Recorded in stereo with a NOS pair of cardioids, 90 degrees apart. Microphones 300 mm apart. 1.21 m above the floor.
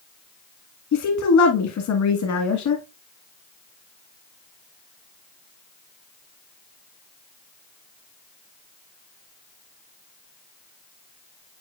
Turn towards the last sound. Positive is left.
turn(degrees=70)